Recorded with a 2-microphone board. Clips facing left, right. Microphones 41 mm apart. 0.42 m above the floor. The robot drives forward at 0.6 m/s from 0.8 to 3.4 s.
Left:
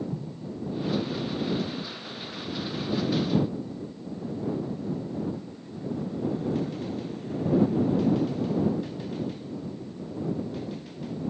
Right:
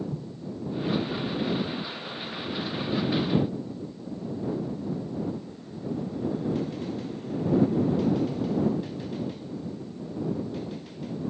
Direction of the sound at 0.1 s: 35° left (ahead or behind).